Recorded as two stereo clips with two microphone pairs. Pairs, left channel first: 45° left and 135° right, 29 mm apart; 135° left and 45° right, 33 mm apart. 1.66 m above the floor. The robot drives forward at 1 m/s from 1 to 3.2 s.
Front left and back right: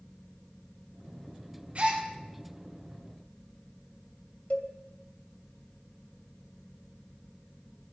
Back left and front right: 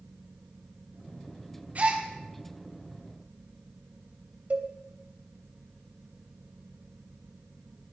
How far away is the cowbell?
About 2 m.